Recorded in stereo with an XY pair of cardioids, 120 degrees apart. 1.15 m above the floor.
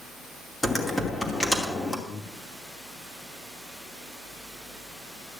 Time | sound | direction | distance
0.6 | typing on a keyboard | 15° left | 2.5 m
2.1 | breathing | 60° left | 1.7 m